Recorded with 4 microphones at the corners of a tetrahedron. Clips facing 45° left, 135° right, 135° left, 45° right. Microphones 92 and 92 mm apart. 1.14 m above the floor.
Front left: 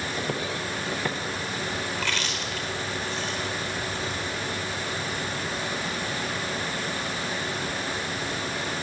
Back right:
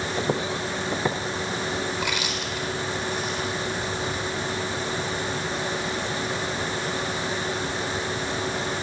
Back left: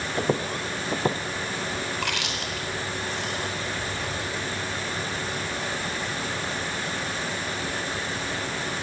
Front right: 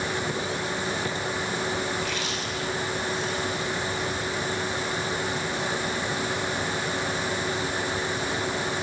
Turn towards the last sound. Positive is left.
turn(degrees=150)